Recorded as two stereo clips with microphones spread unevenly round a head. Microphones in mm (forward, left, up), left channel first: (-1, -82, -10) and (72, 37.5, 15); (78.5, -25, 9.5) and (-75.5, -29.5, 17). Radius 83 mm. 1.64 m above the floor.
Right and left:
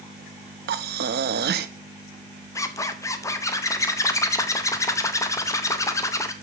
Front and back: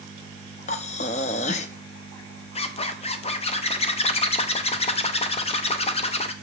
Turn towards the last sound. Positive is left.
turn(degrees=-50)